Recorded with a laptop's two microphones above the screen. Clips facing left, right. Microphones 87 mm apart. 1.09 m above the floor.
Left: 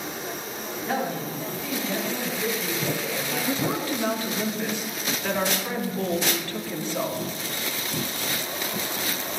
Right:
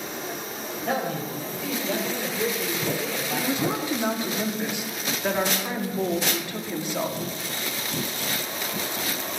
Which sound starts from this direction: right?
A man speaking, at 0.8 s.